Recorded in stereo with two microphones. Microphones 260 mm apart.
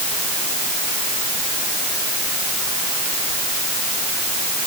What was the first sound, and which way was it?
Only background noise.